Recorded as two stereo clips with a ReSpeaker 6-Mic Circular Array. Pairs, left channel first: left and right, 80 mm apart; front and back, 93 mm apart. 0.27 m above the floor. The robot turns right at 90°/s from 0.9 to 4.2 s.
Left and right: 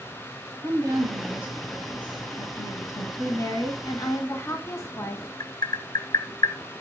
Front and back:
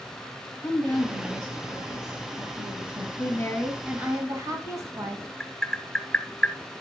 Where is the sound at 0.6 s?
70° right, 1.3 m; by 3.1 s 125° left, 1.3 m.